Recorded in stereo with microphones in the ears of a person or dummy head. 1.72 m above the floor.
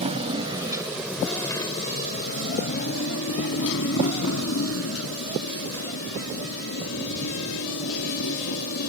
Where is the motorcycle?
35° right (ahead or behind); by 8.9 s 80° left.